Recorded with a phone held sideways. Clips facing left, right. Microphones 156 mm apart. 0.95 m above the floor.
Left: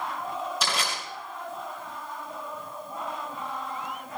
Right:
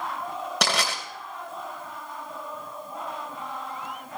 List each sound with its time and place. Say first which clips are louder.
0.6 s crushing: right 4 dB; 65° right (ahead or behind), 3 m